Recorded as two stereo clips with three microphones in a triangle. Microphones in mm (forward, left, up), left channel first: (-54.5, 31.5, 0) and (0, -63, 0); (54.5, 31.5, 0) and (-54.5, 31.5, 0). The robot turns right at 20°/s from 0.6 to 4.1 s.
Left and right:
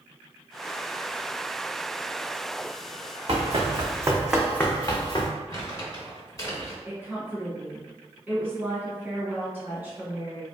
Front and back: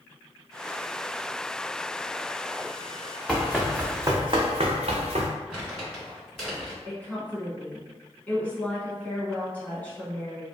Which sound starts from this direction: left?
Crumpling, at 5.5 s.